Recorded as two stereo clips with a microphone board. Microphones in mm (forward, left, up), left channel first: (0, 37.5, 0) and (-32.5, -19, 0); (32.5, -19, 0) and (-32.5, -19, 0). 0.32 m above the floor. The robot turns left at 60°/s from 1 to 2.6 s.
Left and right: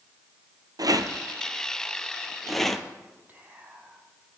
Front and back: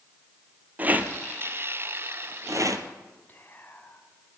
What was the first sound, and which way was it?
A rattle, 115° right.